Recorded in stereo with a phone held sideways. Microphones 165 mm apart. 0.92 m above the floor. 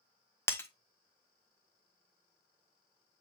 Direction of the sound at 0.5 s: 15° left (ahead or behind).